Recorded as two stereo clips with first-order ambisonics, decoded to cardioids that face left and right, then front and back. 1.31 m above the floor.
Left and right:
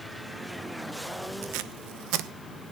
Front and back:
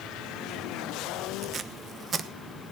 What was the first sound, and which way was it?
Tape being pulled, 115° right.